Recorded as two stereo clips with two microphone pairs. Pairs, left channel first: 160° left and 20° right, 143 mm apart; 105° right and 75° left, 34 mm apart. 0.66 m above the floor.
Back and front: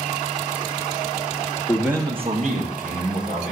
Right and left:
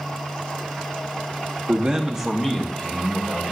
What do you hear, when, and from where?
1.7 s a man speaking: 90° left, 0.7 m; by 3.5 s 35° right, 2 m